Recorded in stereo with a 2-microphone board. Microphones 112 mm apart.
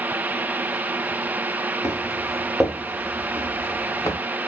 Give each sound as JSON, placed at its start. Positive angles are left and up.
{"t": 1.8, "sound": "footsteps", "side_deg": -5, "distance_m": 2.0}